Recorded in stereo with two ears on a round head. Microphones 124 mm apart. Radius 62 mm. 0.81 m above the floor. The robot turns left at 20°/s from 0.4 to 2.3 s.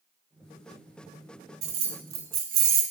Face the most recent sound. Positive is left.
turn(degrees=-80)